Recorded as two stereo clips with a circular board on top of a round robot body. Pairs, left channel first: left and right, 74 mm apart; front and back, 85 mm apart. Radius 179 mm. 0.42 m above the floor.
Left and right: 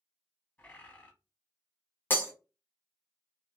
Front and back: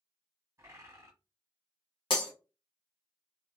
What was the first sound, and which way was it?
A bird, 145° left.